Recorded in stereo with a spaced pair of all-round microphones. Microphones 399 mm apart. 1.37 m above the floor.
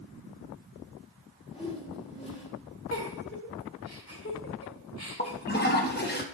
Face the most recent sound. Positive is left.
turn(degrees=25)  # may be behind; listen again after turning